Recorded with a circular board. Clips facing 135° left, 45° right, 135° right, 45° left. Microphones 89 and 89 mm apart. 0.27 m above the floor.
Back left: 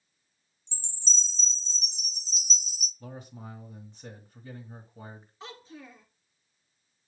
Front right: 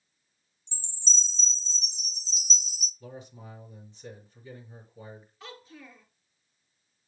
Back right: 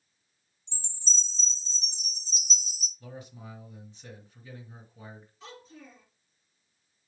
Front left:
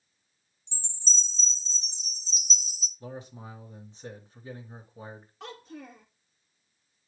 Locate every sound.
0.7 s a chime: 105° left, 2.5 m
3.0 s a man speaking: 105° left, 3 m
5.4 s a child speaking: 70° left, 2 m